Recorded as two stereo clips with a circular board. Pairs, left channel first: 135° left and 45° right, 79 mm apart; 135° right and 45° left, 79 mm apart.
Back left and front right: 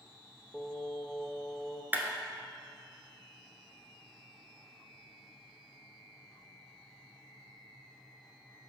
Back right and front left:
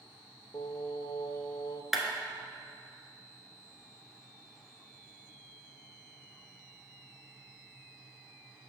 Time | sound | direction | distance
0.5 | singing | 140° right | 0.9 m
1.9 | a clap | 40° right | 0.9 m